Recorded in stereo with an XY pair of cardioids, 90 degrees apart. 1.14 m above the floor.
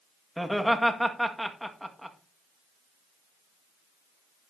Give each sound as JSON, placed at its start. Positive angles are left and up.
{"t": 0.4, "sound": "laughter", "azimuth_deg": 0, "distance_m": 1.9}